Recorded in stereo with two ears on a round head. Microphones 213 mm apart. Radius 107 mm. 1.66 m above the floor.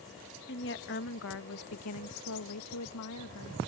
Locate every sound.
0.5 s a woman speaking: 45° left (ahead or behind); by 3.6 s 65° left (ahead or behind)